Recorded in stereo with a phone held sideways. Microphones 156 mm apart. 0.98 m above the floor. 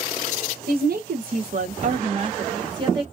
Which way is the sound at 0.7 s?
75° right (ahead or behind).